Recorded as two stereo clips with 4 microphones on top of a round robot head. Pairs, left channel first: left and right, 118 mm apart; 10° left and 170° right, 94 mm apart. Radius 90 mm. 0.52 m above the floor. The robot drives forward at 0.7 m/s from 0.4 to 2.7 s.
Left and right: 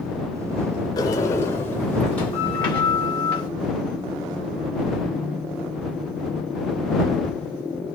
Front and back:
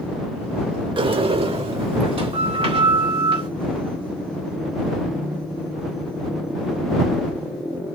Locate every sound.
1.0 s a sliding door: 155° left, 0.6 m; by 3.5 s 170° left, 1.7 m